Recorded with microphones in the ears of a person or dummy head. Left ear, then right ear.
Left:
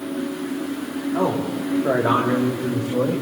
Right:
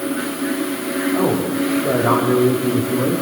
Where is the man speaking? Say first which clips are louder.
Right 1 dB; 70° left (ahead or behind), 4 m; by 3.2 s 65° left (ahead or behind), 2.5 m.